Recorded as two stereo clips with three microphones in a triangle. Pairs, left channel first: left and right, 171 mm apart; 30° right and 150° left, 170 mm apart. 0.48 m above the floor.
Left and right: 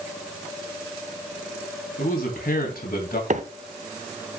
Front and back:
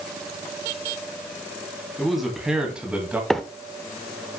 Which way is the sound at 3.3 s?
115° right.